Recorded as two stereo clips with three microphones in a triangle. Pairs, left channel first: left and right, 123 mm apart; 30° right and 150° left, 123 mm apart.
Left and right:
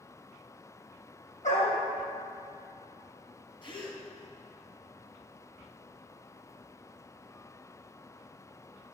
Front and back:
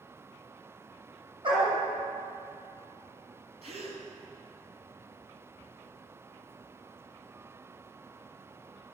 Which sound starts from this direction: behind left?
A gasp, at 3.6 s.